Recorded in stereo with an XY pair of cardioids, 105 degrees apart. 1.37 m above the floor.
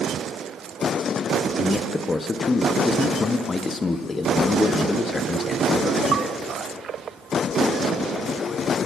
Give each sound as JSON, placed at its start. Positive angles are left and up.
{"t": 1.6, "sound": "a man speaking", "azimuth_deg": 30, "distance_m": 0.6}